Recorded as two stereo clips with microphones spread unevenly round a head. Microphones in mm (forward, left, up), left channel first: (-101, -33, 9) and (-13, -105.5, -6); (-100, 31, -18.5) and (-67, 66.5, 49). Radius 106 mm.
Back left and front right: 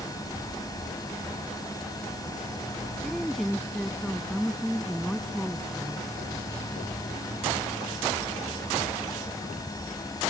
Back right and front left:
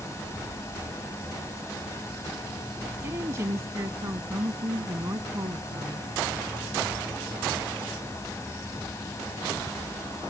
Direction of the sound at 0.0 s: 165° right.